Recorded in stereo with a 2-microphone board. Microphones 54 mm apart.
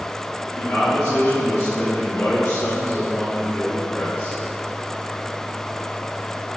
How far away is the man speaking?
About 1.9 m.